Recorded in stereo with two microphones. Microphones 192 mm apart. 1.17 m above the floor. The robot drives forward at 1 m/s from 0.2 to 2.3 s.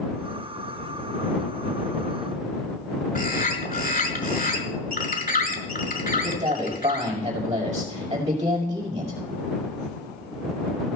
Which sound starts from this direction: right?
A man speaking, at 6.1 s.